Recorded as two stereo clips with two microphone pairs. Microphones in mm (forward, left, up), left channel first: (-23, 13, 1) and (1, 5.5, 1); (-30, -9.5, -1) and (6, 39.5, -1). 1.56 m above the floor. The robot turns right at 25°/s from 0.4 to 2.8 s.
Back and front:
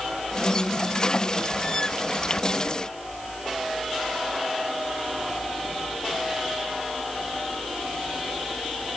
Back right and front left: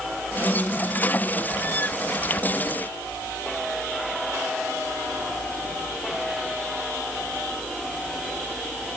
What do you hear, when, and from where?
Only background noise.